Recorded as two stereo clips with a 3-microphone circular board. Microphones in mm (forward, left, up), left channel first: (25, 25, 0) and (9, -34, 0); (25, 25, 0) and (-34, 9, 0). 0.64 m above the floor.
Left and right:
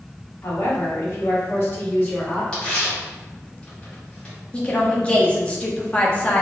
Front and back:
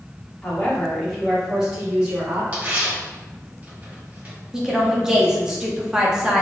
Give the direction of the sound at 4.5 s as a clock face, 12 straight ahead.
8 o'clock.